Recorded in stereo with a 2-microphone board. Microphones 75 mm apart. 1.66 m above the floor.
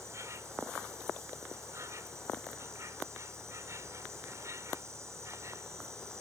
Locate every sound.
0.0 s an insect: 40° right (ahead or behind)